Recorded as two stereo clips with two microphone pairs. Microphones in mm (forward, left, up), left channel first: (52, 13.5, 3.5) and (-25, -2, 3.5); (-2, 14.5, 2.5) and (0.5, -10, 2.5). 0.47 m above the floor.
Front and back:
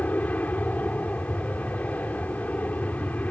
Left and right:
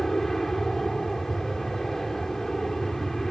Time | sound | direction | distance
0.0 | an aircraft | 45° left | ?